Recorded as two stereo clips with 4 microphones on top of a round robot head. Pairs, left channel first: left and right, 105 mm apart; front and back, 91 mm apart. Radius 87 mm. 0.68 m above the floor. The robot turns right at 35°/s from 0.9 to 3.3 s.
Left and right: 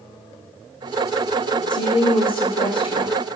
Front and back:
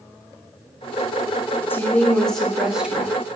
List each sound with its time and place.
1.7 s a woman speaking: 60° left, 0.8 m; by 3.1 s 115° left, 0.8 m